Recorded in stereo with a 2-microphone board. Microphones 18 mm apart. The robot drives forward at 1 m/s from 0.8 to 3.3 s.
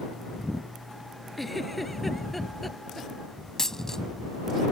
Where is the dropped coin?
25° left (ahead or behind).